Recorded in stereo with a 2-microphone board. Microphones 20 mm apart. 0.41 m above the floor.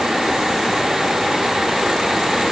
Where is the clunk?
No clunk in this recording.